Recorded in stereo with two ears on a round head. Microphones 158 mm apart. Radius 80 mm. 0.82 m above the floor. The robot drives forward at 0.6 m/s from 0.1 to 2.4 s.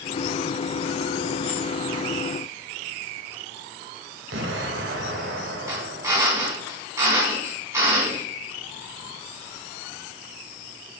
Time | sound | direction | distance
4.3 | an explosion | 65° right (ahead or behind) | 2 m
5.7 | a drill | 15° right (ahead or behind) | 4.5 m